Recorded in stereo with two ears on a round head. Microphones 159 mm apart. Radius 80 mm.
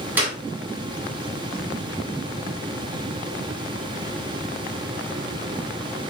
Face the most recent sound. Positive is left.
turn(degrees=-10)  # may be behind; listen again after turning